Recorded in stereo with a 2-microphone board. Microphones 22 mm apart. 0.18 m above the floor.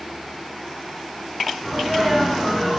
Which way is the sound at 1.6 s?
5° right (ahead or behind).